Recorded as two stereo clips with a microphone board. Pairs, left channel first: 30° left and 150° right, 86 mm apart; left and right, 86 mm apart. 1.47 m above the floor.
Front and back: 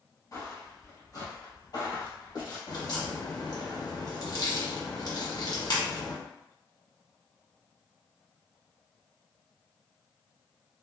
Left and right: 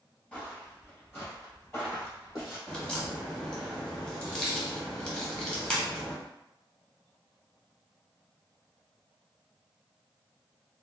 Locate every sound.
0.3 s footsteps: 30° left, 1.8 m; by 2.6 s 40° left, 3 m
2.7 s a crack: 10° left, 1.1 m